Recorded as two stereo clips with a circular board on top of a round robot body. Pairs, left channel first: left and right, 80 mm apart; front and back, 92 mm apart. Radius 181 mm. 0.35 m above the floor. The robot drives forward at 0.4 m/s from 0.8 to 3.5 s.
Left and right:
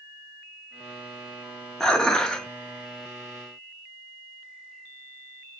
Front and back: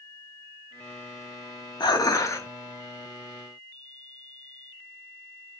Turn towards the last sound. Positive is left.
turn(degrees=155)